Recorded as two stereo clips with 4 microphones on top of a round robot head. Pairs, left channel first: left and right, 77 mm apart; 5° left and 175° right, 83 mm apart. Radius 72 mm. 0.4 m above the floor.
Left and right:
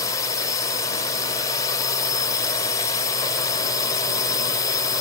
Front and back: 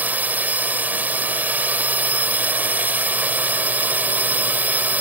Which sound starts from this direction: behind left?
A drone, at 0.0 s.